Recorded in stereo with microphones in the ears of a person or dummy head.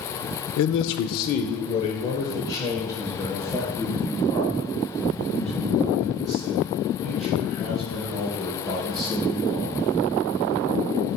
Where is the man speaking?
80° left, 0.6 m; by 9.8 s centre (ahead or behind), 4.5 m.